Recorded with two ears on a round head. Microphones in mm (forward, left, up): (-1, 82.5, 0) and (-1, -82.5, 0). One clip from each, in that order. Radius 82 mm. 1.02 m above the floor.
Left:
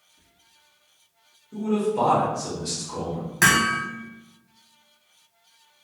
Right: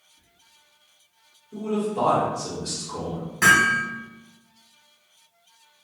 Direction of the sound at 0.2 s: 25° left (ahead or behind).